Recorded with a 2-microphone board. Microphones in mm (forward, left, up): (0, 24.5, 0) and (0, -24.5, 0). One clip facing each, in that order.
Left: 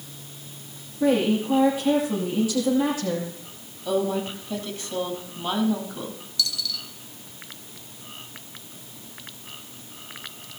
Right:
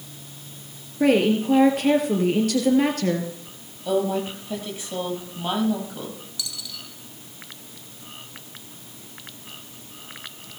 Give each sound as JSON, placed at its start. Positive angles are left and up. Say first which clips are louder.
{"t": 1.0, "sound": "a woman speaking", "louder": "right 2 dB", "side_deg": -70, "distance_m": 3.0}
{"t": 3.9, "sound": "a woman speaking", "louder": "right 1 dB", "side_deg": -15, "distance_m": 5.0}
{"t": 6.4, "sound": "a dropped coin", "louder": "left 10 dB", "side_deg": -20, "distance_m": 1.8}